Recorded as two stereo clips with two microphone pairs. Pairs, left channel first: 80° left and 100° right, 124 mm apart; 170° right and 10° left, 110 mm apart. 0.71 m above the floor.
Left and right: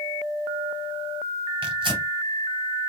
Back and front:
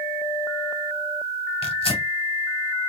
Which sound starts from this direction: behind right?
Tearing paper, at 1.6 s.